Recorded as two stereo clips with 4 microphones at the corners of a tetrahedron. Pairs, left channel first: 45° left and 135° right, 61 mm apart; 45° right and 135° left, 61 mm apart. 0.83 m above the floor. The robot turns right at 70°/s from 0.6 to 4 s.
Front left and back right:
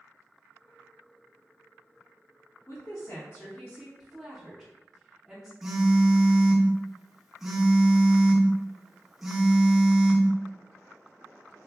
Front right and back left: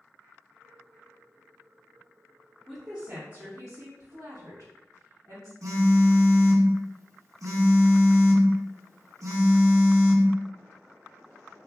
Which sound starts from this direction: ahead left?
A woman speaking, at 2.7 s.